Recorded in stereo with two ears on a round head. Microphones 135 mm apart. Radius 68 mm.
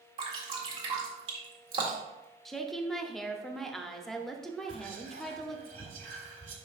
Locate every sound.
0.2 s dripping: 40° right (ahead or behind), 1.7 m
2.5 s a woman speaking: centre (ahead or behind), 0.7 m
4.7 s whispering: 45° right (ahead or behind), 2 m